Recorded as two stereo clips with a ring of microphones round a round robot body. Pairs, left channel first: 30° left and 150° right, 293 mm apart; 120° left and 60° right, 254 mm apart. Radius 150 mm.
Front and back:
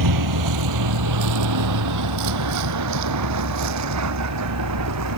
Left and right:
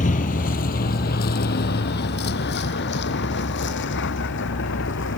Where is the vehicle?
175° right; by 5.2 s 175° left.